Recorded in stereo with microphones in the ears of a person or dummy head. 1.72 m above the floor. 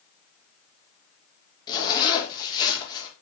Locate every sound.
1.7 s a zipper: 20° left (ahead or behind), 2.5 m